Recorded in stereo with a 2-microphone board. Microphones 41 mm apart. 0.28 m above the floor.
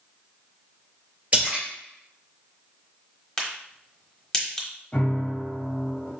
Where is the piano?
35° left (ahead or behind), 1.0 m.